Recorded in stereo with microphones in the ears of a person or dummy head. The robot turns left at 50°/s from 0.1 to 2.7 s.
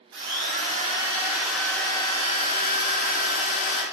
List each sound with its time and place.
0.1 s a drill: 115° right, 0.7 m; by 3.8 s 120° left, 0.7 m